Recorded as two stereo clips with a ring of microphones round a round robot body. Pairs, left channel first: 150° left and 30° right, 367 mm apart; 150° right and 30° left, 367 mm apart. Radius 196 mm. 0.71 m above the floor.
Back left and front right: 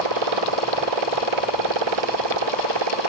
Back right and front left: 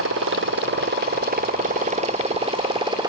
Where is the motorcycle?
30° right; by 3.1 s 50° right.